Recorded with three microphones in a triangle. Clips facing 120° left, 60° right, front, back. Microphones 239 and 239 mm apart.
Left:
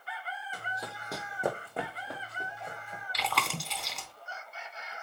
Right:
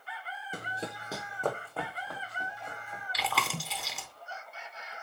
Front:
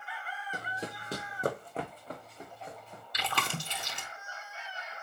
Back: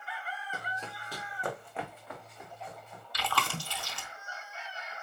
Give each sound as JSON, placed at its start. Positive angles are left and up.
{"t": 0.5, "sound": "running footsteps", "azimuth_deg": -65, "distance_m": 0.6}
{"t": 3.1, "sound": "chewing", "azimuth_deg": 25, "distance_m": 0.8}